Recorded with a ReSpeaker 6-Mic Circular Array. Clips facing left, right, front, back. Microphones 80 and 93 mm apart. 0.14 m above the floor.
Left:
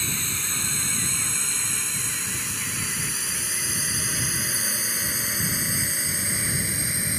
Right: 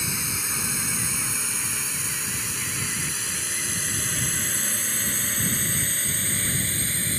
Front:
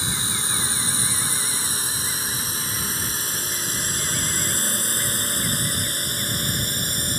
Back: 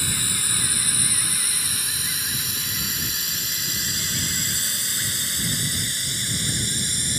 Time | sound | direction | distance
0.0 | a drone | 25° right | ?